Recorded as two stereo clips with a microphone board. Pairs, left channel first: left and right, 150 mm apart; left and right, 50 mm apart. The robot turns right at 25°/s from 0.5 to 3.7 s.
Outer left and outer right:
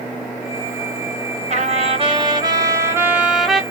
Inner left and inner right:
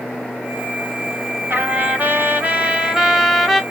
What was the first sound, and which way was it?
A trumpet, 55° right.